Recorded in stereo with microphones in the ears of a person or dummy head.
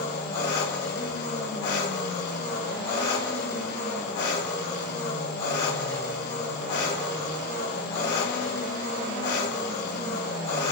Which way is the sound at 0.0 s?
65° left (ahead or behind).